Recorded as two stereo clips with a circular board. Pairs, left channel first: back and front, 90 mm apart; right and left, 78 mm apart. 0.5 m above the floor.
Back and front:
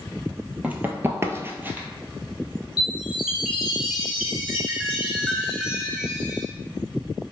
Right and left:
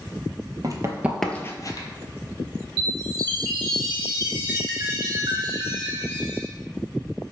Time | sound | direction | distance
0.6 | running footsteps | 70° left | 0.7 m
2.8 | a chime | 80° left | 1.4 m